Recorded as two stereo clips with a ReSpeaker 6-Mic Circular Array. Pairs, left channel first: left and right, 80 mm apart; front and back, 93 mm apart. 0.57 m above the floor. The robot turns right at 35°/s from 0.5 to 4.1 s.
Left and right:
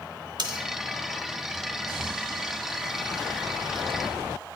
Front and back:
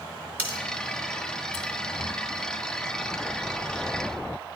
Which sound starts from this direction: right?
Cutlery clinking, at 0.4 s.